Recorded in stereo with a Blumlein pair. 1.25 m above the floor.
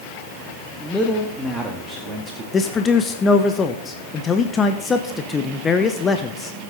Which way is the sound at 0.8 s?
5° left.